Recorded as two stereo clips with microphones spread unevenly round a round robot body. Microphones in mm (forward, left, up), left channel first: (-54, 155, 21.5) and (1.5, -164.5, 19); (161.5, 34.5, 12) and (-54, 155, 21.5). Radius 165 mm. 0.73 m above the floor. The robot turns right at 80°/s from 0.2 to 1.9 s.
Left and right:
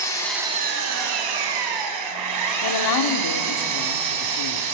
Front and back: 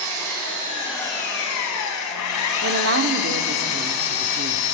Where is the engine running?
Straight behind, 4 m; by 4.8 s 45° right, 4 m.